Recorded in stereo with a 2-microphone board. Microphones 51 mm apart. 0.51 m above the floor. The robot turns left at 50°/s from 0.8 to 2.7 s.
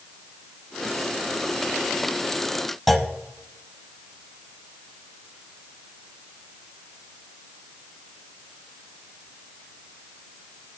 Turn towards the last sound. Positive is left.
turn(degrees=0)  # may be behind; listen again after turning